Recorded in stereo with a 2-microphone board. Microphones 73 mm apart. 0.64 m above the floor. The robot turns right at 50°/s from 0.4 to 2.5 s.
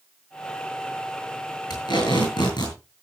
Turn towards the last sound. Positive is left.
turn(degrees=105)